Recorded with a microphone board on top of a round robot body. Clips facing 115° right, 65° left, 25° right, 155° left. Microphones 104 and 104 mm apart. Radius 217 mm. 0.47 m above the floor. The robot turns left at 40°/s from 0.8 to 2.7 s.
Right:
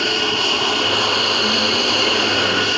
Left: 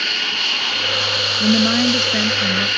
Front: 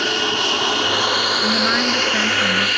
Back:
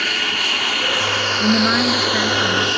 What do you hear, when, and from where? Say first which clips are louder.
0.0 s an aircraft: right 7 dB, front 4 dB; 75° right; by 2.8 s 155° right
1.4 s a woman speaking: left 4 dB, back 7 dB; 95° left; by 2.7 s 45° left